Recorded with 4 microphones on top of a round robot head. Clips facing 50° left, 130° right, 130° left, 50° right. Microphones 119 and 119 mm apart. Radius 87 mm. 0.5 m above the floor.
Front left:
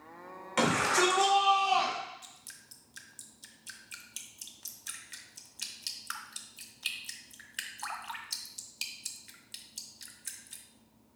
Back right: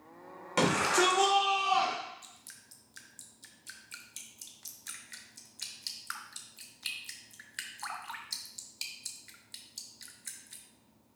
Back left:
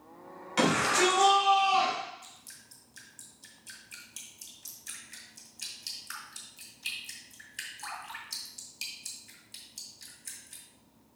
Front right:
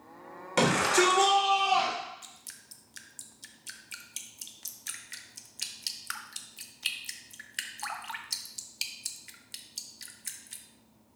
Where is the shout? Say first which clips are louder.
Even, front right 1 dB; 80° right, 2 m; by 1.9 s 30° right, 2.5 m.